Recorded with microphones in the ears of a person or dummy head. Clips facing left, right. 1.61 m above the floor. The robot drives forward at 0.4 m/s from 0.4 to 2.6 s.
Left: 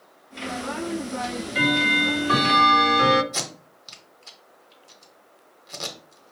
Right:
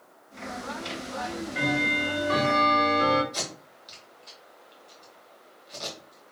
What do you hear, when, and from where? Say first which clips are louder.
1.2 s ticking: even; 35° left (ahead or behind), 0.8 m; by 3.2 s 65° left (ahead or behind), 0.5 m
3.3 s tape being pulled: left 2 dB; 70° left (ahead or behind), 1.0 m